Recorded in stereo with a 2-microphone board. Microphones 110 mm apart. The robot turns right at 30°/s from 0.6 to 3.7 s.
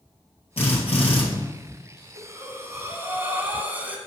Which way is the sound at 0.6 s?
70° left (ahead or behind).